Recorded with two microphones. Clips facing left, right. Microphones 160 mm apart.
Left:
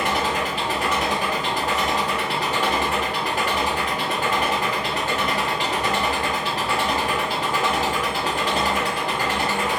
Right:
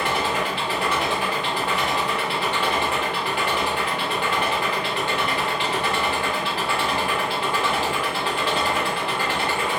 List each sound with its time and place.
0.0 s an engine running: 40° left (ahead or behind), 1.0 m